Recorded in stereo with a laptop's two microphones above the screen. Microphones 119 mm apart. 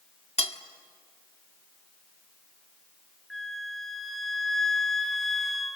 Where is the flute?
Centre (ahead or behind), 0.7 m.